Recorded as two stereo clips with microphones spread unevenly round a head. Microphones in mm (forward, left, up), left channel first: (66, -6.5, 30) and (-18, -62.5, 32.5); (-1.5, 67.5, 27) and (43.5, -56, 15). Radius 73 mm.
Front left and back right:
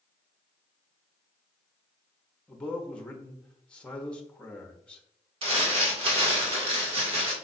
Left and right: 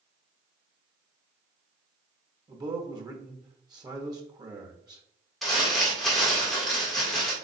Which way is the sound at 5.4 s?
155° right.